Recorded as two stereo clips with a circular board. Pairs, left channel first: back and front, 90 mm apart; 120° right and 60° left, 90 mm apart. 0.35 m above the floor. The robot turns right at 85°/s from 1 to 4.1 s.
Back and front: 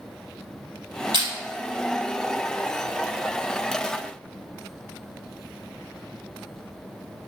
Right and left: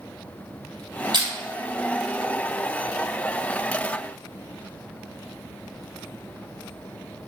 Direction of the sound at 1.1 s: 30° left.